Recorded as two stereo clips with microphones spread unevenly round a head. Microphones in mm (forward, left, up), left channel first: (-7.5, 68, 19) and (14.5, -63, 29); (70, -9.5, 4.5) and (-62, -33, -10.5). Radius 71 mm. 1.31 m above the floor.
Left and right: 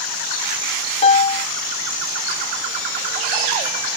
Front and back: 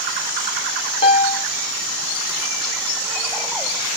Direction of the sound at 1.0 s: 55° left.